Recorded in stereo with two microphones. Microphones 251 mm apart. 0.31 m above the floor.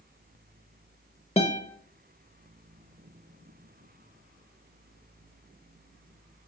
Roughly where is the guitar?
Left.